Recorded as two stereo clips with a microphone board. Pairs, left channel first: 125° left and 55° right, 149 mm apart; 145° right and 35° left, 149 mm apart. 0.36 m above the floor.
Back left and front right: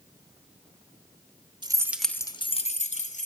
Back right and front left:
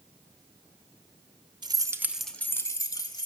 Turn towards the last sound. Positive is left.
turn(degrees=155)